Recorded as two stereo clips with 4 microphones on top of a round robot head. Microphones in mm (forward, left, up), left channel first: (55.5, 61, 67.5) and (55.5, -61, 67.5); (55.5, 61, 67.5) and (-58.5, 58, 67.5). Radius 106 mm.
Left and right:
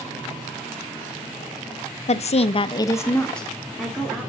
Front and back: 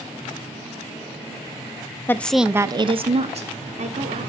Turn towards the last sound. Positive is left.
turn(degrees=-170)